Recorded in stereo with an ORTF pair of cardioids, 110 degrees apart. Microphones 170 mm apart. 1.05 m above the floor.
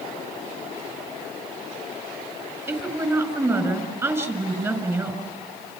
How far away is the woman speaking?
About 5 m.